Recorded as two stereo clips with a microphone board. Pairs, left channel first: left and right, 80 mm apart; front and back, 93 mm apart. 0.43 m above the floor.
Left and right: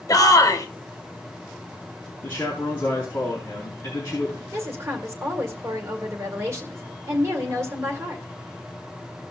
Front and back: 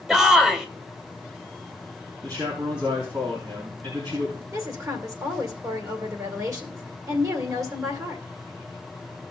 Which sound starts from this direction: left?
A shout, at 0.1 s.